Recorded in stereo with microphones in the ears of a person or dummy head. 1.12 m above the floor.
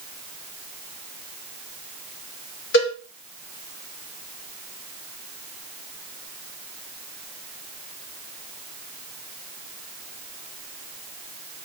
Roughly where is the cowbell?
Left.